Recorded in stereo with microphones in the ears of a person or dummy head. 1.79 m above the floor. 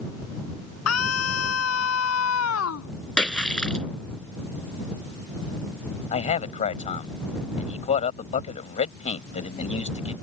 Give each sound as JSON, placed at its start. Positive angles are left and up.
{"t": 0.9, "sound": "a scream", "side_deg": 85}
{"t": 3.2, "sound": "a splash", "side_deg": 10}
{"t": 6.1, "sound": "a man speaking", "side_deg": 35}